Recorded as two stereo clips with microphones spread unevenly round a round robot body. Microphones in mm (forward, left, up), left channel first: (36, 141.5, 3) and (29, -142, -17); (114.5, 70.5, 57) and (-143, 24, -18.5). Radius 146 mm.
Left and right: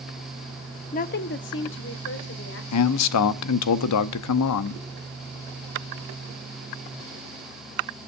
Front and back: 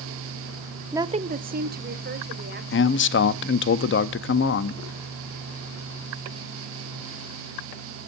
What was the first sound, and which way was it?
A woman speaking, 145° left.